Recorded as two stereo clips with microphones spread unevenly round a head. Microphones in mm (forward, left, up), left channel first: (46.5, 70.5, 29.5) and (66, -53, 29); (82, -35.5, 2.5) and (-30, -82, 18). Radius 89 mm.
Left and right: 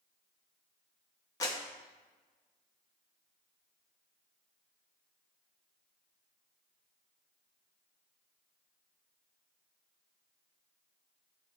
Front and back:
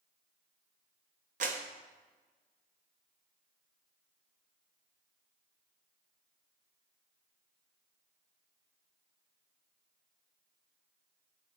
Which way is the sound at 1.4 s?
165° left.